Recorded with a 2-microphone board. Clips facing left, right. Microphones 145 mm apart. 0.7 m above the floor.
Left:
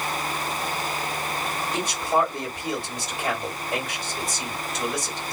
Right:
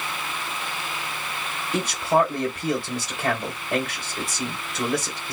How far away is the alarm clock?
I don't hear an alarm clock.